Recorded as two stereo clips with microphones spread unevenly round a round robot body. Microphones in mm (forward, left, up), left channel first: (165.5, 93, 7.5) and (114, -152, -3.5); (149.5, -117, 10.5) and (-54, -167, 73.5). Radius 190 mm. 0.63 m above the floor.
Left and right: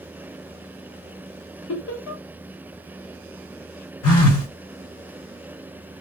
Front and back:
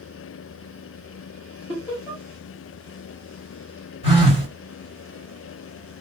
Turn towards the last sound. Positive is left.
turn(degrees=65)